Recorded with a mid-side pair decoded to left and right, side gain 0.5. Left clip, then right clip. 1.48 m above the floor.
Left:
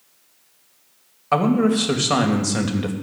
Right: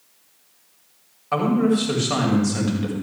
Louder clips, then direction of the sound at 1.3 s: Left 2 dB; 35° left.